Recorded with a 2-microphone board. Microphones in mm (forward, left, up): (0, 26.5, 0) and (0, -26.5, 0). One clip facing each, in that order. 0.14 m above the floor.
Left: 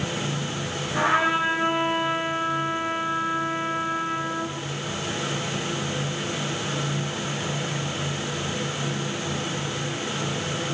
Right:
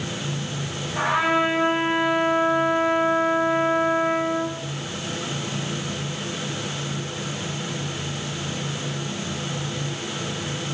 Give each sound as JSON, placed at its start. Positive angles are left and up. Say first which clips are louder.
{"t": 0.9, "sound": "a trumpet", "louder": "right 1 dB", "side_deg": 35, "distance_m": 3.0}